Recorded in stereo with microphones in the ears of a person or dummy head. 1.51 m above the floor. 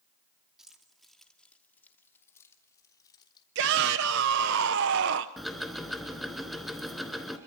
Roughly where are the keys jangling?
Centre.